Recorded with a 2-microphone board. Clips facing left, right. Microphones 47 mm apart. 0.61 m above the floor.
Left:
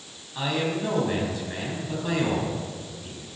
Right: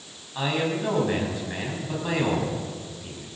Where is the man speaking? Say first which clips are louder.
Right 1 dB; 15° right (ahead or behind), 5.5 m.